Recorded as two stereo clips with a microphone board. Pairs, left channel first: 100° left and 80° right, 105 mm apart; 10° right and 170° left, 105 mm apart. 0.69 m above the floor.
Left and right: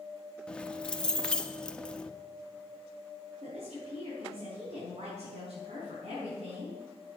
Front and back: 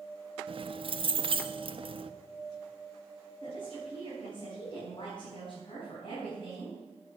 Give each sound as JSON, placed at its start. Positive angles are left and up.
{"t": 0.5, "sound": "keys jangling", "azimuth_deg": 175, "distance_m": 0.7}
{"t": 3.4, "sound": "a woman speaking", "azimuth_deg": -60, "distance_m": 6.0}